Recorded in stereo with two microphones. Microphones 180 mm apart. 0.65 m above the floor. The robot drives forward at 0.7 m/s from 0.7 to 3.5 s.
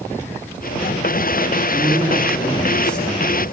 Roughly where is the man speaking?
Centre.